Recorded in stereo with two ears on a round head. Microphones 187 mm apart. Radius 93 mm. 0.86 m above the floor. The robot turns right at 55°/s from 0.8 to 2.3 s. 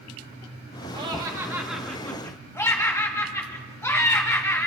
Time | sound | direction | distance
0.9 | laughter | 50° right | 1.1 m